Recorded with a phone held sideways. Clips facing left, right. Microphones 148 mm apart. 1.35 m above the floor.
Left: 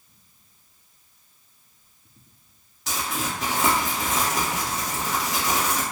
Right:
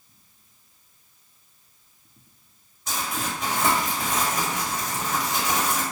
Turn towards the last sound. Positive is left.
turn(degrees=75)  # may be behind; listen again after turning